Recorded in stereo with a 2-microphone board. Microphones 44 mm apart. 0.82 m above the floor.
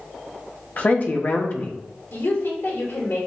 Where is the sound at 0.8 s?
40° left (ahead or behind), 0.9 m.